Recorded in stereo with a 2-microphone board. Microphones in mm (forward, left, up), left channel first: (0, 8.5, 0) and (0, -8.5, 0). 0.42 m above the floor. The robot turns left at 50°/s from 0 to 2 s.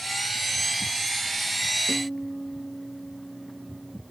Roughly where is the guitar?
Centre.